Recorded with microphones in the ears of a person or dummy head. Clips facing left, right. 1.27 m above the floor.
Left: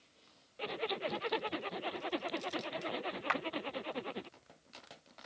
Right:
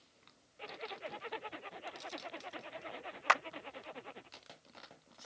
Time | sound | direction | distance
0.6 | a zipper | 60° left (ahead or behind) | ?
3.3 | a clap | 55° right (ahead or behind) | ?